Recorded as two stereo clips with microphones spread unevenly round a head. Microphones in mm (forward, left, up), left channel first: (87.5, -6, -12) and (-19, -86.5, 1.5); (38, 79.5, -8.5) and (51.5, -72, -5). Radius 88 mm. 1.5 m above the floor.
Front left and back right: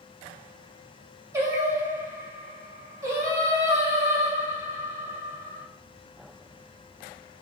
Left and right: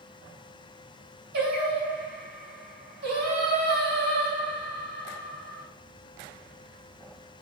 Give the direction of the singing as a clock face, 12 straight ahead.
3 o'clock.